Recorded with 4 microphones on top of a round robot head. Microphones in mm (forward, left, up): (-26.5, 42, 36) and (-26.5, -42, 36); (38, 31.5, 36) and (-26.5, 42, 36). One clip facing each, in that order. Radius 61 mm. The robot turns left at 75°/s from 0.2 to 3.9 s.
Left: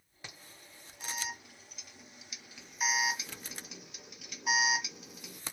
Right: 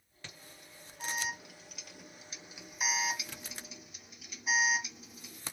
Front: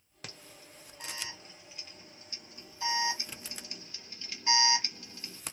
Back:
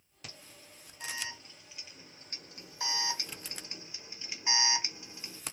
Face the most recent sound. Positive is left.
turn(degrees=100)